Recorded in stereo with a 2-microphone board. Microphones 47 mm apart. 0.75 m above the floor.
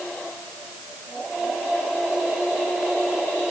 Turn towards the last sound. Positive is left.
No sound to turn to.